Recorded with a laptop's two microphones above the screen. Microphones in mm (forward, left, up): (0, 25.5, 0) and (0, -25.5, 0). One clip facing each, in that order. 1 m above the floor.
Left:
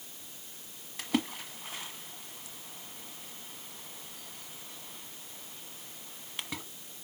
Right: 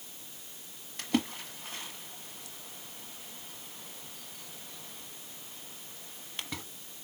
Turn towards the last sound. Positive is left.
turn(degrees=0)  # may be behind; listen again after turning